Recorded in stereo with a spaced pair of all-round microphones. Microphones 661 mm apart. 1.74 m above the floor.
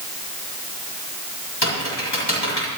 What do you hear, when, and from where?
1.6 s typing on a keyboard: 40° left (ahead or behind), 8 m